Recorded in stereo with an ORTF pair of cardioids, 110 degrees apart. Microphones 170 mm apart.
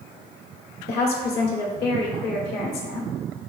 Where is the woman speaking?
70° left, 1.0 m.